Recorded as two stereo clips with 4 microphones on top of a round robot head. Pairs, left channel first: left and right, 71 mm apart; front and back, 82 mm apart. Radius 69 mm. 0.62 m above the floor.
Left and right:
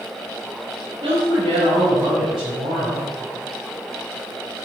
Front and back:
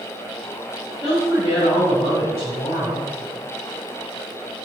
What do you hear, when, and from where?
1.0 s a woman speaking: 70° right, 3.5 m